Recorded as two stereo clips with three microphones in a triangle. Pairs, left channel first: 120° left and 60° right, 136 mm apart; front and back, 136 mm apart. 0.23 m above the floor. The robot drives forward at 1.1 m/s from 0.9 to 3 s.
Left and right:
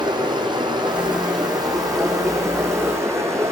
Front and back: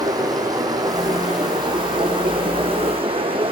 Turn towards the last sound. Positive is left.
turn(degrees=-130)